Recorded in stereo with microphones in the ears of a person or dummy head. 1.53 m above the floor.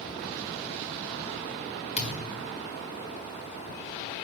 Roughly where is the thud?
Left.